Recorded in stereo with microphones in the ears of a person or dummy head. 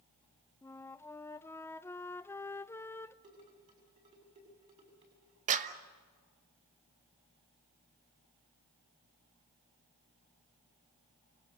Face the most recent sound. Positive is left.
turn(degrees=-40)  # may be behind; listen again after turning